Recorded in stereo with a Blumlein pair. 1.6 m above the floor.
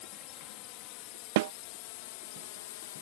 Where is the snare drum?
50° right.